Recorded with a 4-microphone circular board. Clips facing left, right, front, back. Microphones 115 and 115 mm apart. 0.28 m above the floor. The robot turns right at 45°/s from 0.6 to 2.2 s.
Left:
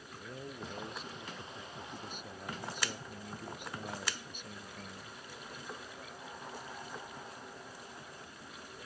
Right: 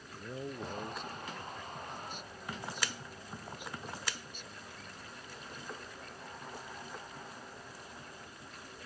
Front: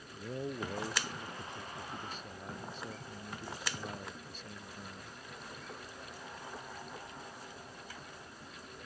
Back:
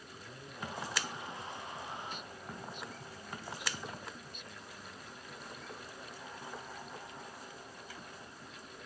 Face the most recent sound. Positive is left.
turn(degrees=55)